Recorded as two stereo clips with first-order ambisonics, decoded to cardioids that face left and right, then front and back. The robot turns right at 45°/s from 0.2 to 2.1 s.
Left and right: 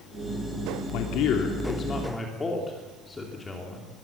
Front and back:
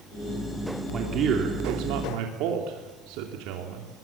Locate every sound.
0.9 s a man speaking: 110° left, 3 m; by 3.9 s 165° left, 3 m